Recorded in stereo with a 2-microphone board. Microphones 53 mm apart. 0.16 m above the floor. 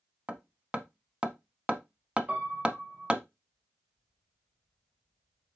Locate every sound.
0.3 s hammering: 20° right (ahead or behind), 0.7 m
2.3 s a piano: 25° right (ahead or behind), 1.6 m